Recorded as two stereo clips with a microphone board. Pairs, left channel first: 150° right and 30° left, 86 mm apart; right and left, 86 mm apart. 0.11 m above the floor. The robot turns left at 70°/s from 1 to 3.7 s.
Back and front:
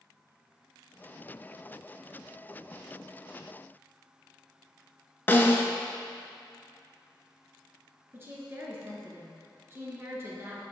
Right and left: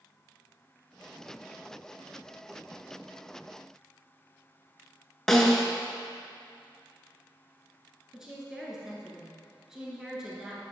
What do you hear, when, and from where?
5.3 s a snare drum: 170° right, 0.7 m
8.1 s a woman speaking: 15° left, 1.4 m